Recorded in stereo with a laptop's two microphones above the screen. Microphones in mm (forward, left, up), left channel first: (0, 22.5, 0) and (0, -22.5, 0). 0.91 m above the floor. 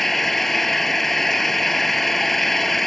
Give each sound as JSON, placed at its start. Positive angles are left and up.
{"t": 0.0, "sound": "an engine running", "side_deg": 5}